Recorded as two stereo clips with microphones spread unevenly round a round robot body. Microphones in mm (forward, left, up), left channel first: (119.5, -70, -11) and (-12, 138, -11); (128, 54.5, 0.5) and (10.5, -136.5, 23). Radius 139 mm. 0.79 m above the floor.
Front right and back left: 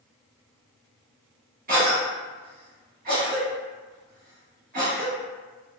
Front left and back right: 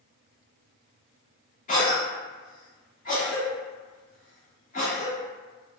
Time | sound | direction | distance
1.7 | a cough | 85° left | 1.0 m